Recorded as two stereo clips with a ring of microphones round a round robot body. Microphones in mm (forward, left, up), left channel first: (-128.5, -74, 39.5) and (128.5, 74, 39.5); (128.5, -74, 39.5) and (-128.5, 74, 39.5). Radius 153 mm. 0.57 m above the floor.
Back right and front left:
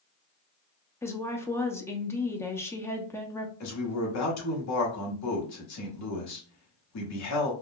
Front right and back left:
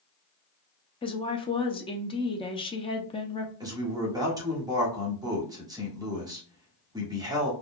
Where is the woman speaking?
80° right, 0.6 m.